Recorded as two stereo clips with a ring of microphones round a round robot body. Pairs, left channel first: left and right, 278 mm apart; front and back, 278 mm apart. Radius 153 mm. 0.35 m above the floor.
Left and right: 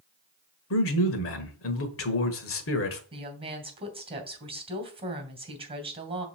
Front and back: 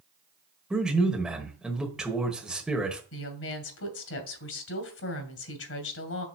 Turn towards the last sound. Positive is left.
turn(degrees=-20)